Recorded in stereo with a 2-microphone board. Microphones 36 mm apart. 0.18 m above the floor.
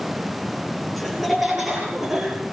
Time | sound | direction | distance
1.0 | laughter | 5° left (ahead or behind) | 5 m